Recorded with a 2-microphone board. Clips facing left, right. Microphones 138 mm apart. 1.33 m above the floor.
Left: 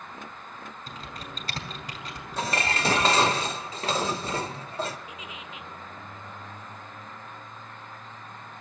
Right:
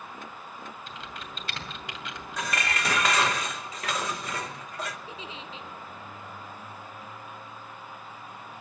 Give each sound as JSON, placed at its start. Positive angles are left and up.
{"t": 0.9, "sound": "typing on a keyboard", "side_deg": 40, "distance_m": 2.5}
{"t": 2.4, "sound": "dishes clattering", "side_deg": 30, "distance_m": 0.9}
{"t": 5.1, "sound": "a giggle", "side_deg": -30, "distance_m": 0.7}